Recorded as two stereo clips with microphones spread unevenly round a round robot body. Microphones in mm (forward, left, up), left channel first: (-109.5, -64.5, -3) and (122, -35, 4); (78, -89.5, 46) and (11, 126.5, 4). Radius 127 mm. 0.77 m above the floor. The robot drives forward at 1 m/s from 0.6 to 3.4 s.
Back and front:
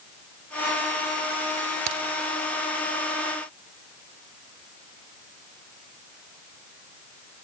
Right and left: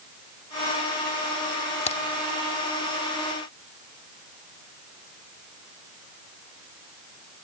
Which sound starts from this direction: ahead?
A crack, at 1.9 s.